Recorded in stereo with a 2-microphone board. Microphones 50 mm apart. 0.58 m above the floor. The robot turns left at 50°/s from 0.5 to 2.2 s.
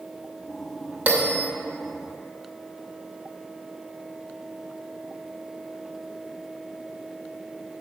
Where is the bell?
30° right (ahead or behind), 1.0 m.